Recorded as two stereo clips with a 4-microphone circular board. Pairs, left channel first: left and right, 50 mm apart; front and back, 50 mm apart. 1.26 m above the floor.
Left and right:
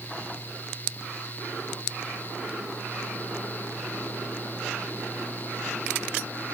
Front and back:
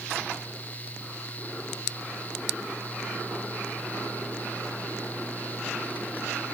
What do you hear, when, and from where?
Only background noise.